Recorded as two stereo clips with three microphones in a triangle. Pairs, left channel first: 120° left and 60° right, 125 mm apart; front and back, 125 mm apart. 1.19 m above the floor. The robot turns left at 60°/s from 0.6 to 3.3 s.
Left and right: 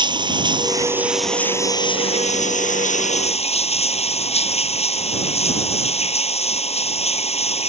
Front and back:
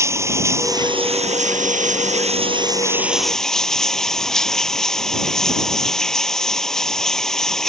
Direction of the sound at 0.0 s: 115° right.